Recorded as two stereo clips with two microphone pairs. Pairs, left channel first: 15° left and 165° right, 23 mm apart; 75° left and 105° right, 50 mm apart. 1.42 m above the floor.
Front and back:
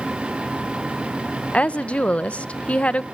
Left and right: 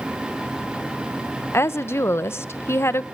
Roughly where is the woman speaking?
Ahead left.